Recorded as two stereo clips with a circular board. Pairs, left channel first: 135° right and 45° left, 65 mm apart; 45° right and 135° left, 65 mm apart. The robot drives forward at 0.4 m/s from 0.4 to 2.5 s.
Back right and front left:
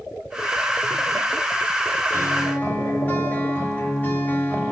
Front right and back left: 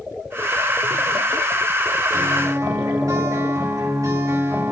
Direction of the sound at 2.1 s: 160° left.